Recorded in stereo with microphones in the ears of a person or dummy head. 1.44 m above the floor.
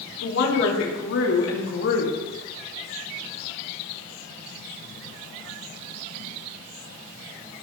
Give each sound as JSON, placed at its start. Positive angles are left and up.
{"t": 0.2, "sound": "a woman speaking", "side_deg": 75, "distance_m": 3.5}